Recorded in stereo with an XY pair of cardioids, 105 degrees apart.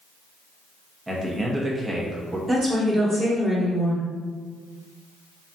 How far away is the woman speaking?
About 1.6 m.